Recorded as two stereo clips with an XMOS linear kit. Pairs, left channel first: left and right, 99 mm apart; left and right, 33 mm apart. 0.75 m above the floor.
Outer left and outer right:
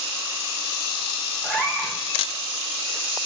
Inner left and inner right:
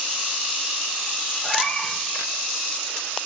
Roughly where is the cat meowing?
Centre.